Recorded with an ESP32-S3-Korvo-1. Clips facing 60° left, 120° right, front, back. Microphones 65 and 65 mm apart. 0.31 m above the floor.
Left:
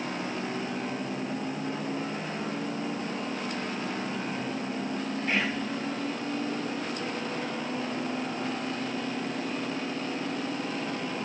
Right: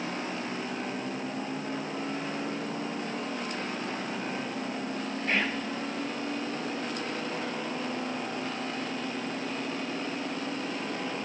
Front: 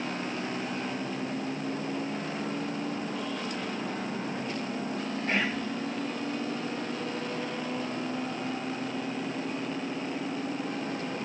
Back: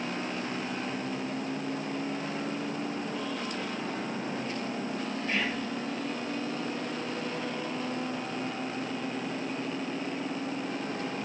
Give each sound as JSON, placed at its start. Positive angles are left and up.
{"t": 5.3, "sound": "whispering", "azimuth_deg": -30, "distance_m": 1.9}